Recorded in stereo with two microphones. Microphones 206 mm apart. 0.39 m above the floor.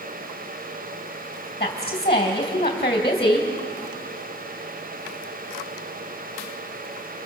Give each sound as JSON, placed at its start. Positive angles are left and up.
{"t": 1.6, "sound": "a woman speaking", "side_deg": 30, "distance_m": 2.5}